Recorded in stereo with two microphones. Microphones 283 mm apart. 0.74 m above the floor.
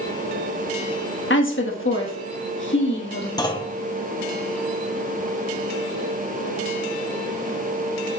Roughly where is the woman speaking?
Left.